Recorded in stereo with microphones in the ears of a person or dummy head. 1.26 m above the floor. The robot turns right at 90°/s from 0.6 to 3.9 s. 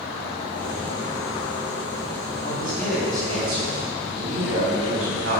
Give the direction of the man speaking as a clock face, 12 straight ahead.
8 o'clock.